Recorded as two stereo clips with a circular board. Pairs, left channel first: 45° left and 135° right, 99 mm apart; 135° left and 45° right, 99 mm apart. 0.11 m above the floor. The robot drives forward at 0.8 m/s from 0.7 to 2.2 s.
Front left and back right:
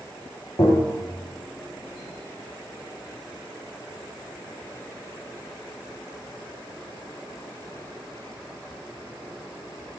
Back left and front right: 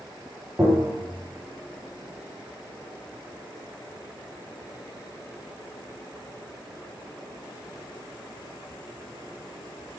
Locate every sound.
0.6 s tapping: 15° left, 4 m